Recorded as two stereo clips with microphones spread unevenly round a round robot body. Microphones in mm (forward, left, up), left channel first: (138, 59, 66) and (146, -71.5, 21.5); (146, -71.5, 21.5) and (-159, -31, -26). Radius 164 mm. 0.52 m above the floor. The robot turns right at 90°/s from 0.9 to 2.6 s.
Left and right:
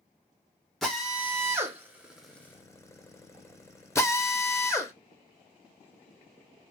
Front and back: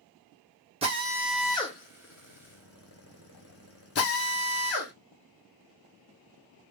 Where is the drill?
145° right, 0.9 m; by 4.9 s 5° left, 0.9 m.